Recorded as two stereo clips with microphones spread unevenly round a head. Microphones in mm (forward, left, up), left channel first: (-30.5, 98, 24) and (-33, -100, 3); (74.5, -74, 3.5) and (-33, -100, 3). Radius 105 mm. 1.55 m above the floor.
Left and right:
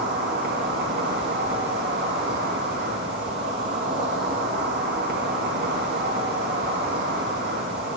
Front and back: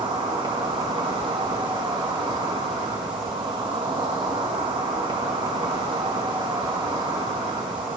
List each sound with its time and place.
0.0 s an insect: 125° right, 2.5 m